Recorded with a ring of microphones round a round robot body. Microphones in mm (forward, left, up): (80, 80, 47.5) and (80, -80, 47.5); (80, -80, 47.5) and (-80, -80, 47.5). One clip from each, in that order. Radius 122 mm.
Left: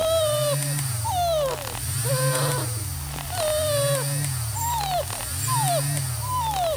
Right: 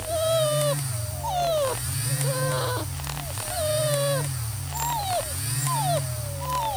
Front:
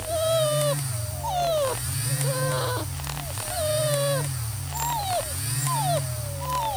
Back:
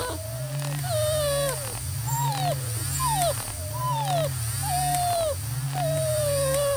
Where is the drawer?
I don't hear a drawer.